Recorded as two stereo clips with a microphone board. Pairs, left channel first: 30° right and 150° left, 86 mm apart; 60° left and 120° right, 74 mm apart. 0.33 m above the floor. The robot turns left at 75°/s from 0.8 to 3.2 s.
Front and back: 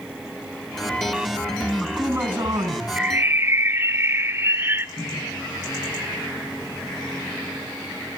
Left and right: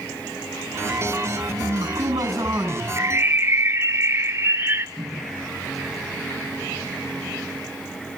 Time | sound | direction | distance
1.6 | a man speaking | 105° right | 3.5 m
3.0 | a bird | 145° right | 0.6 m
5.0 | a microwave | 35° right | 3 m